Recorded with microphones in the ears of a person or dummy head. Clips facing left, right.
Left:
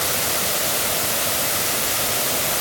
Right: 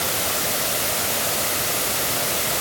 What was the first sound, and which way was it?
Only background noise.